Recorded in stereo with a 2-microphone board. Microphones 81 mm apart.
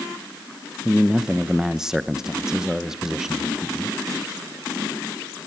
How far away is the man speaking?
About 0.8 m.